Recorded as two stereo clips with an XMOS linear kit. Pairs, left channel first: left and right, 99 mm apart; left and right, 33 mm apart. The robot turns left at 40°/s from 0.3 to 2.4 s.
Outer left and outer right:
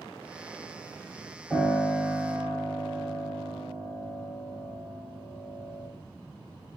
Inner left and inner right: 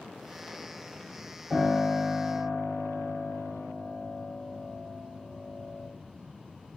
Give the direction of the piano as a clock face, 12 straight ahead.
11 o'clock.